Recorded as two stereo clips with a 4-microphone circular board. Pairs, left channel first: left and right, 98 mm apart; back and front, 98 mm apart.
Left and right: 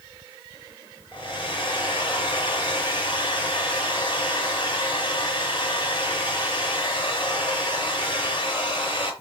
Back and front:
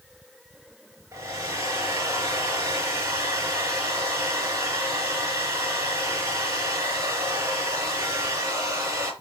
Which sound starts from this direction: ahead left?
A hair dryer, at 1.1 s.